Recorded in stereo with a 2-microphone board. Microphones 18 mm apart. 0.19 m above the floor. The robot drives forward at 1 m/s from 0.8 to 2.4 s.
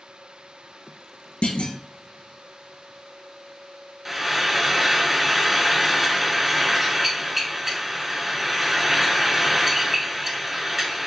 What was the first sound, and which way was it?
A clunk, 80° left.